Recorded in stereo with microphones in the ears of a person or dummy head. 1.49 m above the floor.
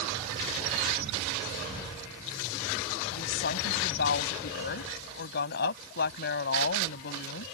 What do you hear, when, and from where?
3.1 s a woman speaking: 65° left (ahead or behind)